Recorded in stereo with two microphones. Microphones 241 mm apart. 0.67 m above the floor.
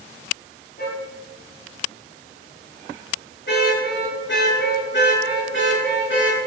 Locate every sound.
0.8 s a car horn: 45° left (ahead or behind), 8.5 m; by 6.4 s 55° left (ahead or behind), 5 m